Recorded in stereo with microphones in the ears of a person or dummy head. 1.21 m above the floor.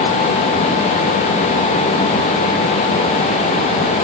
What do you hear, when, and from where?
Only background noise.